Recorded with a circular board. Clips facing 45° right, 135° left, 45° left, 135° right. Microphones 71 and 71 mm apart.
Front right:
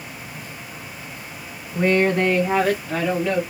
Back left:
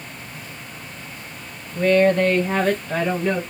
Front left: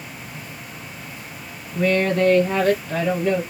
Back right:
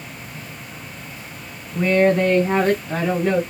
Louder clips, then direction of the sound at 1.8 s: Back left 2 dB, back right 3 dB; 80° right.